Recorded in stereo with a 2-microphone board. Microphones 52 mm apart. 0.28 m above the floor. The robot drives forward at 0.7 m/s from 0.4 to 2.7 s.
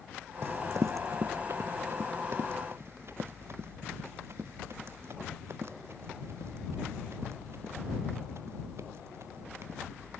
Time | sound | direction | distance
0.4 | running footsteps | 60° right (ahead or behind) | ?